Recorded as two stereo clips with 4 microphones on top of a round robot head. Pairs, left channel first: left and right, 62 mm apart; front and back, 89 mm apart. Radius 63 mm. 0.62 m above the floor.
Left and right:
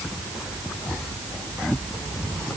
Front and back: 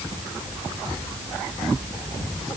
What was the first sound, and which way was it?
Only background noise.